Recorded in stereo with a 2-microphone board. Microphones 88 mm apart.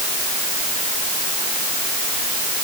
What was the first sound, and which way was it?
Only background noise.